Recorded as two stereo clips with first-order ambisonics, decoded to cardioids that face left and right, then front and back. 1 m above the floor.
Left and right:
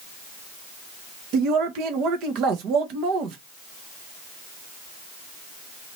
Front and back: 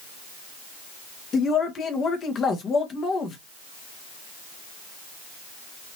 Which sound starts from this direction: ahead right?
A man speaking, at 1.3 s.